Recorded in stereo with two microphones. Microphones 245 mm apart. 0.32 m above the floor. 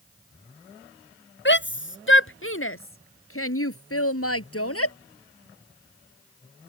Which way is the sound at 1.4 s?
50° left (ahead or behind).